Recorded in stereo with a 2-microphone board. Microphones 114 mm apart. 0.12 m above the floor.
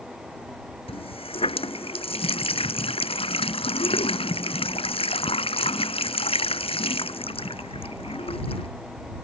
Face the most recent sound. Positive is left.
turn(degrees=60)  # may be behind; listen again after turning